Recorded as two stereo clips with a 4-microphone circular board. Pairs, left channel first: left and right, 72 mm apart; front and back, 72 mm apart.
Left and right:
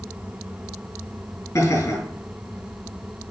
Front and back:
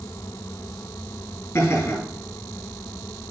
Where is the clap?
No clap in this recording.